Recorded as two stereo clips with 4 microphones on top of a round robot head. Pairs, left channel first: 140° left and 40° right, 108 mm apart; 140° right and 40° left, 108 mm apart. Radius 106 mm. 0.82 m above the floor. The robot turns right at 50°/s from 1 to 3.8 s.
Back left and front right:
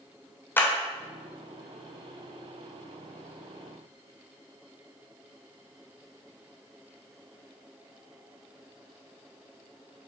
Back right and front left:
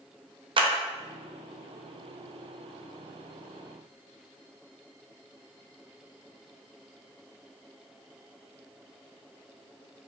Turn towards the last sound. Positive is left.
turn(degrees=-150)